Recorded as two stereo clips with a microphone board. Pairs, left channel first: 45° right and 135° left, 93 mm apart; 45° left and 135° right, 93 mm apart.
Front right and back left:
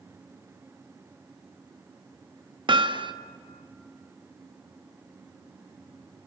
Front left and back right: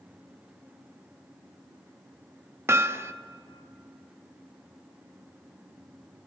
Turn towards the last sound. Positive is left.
turn(degrees=165)